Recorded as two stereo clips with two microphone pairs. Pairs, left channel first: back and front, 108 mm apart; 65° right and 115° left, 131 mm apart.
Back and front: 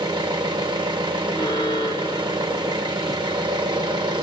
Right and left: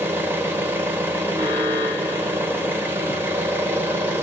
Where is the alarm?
140° left, 2.5 m.